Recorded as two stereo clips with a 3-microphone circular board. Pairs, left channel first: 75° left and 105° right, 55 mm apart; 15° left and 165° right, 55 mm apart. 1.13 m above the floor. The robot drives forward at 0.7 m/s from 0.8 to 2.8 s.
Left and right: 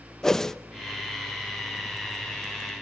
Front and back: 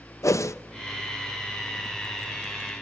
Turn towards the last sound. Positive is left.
turn(degrees=-175)